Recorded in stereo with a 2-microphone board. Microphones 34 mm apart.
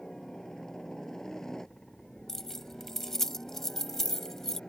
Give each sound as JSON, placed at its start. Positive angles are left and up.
{"t": 0.0, "sound": "a helicopter", "side_deg": 15}
{"t": 2.3, "sound": "keys jangling", "side_deg": 10}